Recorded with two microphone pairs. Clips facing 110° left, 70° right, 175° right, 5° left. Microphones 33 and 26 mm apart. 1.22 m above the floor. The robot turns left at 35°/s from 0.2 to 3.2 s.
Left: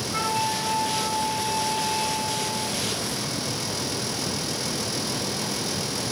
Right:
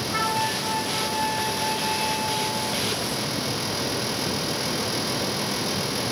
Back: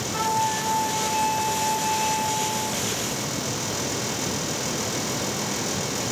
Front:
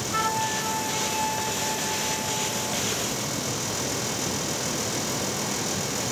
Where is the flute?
35° right, 7 m; by 2.8 s 125° right, 7 m.